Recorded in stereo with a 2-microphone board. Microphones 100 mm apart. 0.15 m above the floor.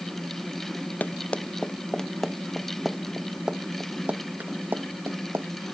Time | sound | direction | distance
1.0 | running footsteps | 15° left (ahead or behind) | ?